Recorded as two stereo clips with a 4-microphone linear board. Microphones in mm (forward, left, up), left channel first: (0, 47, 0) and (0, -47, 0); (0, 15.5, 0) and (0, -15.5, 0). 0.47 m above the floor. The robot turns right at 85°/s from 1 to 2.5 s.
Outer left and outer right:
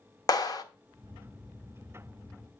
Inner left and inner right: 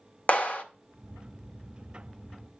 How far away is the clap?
About 0.9 m.